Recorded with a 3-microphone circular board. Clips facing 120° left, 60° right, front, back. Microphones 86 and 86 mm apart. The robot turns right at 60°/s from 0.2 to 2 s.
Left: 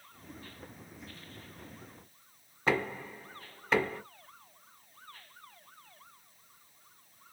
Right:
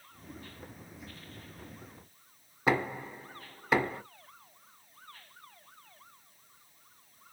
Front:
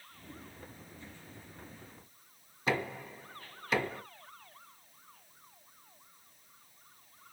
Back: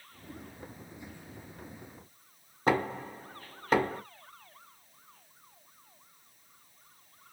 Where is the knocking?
140° right, 1.6 m.